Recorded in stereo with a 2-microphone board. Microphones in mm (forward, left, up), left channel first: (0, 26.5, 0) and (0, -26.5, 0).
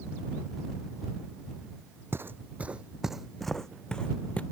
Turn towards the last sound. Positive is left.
turn(degrees=25)  # may be behind; listen again after turning